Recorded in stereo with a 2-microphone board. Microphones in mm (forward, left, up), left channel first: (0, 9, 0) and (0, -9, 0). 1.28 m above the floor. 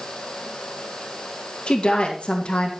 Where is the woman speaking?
70° left (ahead or behind), 2 m.